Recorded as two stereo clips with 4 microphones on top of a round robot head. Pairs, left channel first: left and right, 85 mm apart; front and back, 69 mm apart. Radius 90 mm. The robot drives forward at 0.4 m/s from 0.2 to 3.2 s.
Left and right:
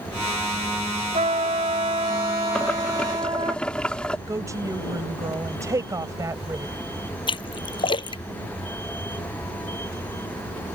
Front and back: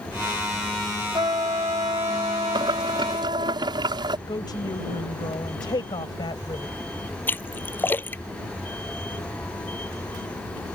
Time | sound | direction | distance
1.1 | a trumpet | 125° right | ?
2.5 | boiling | 170° left | ?
4.3 | a woman speaking | 35° right | ?
7.3 | a splash | 65° left | ?